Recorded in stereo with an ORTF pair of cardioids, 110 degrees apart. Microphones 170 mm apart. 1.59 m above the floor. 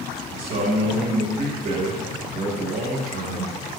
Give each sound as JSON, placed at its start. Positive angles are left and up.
{"t": 0.3, "sound": "a man speaking", "azimuth_deg": -50, "distance_m": 3.5}